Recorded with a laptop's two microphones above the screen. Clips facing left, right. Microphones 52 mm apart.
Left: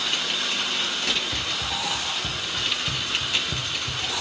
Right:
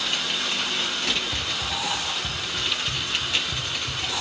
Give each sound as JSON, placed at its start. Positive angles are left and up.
{"t": 1.3, "sound": "running footsteps", "side_deg": 55, "distance_m": 9.0}